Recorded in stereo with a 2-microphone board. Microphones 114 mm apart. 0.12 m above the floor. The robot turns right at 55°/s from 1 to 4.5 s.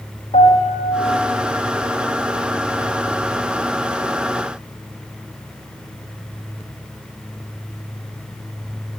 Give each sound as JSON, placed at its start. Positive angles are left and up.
{"t": 0.3, "sound": "a piano", "side_deg": 80, "distance_m": 5.5}